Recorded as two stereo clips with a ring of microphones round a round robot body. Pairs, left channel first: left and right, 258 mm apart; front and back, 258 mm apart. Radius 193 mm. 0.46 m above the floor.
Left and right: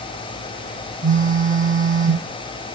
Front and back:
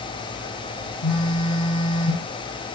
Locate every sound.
1.0 s a phone buzzing: 30° right, 8 m